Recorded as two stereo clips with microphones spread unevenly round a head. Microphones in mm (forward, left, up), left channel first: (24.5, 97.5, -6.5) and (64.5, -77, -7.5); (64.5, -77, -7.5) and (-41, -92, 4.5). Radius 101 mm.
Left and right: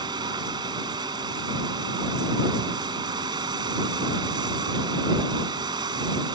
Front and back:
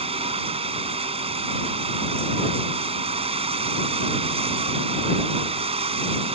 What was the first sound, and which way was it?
Running water, 150° right.